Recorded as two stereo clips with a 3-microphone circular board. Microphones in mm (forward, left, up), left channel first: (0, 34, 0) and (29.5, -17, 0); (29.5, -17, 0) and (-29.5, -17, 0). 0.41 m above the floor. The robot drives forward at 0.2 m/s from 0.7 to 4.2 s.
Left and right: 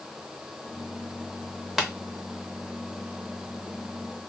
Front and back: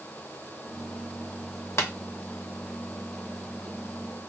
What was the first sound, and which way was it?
Tapping, 30° left.